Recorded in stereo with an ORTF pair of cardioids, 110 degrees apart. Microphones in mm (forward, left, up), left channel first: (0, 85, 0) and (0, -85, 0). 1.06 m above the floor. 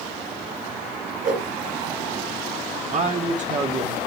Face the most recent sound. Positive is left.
turn(degrees=-45)